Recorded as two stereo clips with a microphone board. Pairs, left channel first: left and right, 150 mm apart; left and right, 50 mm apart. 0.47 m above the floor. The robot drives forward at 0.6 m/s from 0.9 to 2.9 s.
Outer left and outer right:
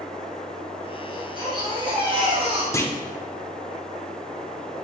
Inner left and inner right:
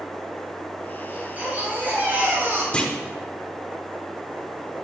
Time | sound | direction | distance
1.1 | a baby crying | 30° right (ahead or behind) | 2.5 m
2.7 | a clunk | 20° left (ahead or behind) | 0.8 m